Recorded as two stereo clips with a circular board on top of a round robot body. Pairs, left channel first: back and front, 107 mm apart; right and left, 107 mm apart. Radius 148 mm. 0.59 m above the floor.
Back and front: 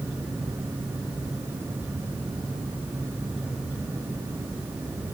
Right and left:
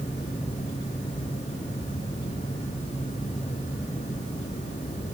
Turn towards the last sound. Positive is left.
No sound to turn to.